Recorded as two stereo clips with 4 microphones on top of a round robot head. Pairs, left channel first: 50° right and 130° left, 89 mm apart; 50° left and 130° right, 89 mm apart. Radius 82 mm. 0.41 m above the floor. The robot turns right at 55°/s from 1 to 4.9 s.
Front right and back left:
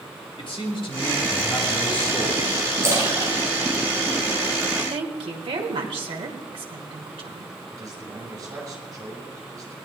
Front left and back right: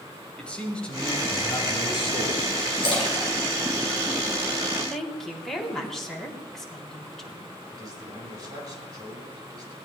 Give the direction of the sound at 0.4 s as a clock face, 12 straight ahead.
1 o'clock.